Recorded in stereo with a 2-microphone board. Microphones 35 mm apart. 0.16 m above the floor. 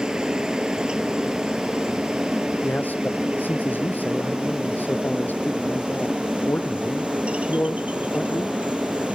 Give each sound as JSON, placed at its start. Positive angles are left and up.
{"t": 0.0, "sound": "a helicopter", "side_deg": -25}
{"t": 2.6, "sound": "a man speaking", "side_deg": 60}